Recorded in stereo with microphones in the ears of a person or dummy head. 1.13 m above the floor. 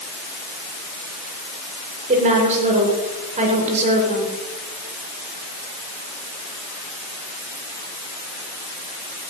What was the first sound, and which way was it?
A woman speaking, 45° right (ahead or behind).